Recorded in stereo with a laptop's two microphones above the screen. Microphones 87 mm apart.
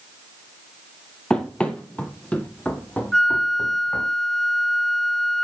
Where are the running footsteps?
10° left (ahead or behind), 1.2 m; by 4.1 s 20° left (ahead or behind), 2.5 m.